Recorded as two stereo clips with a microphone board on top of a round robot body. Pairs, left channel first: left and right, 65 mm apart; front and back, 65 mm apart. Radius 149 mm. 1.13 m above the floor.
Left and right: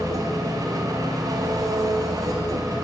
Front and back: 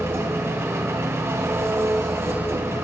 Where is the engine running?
130° right, 2.5 m.